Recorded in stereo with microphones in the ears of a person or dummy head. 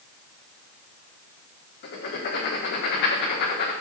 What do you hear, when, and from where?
1.8 s writing: 55° left (ahead or behind), 1.6 m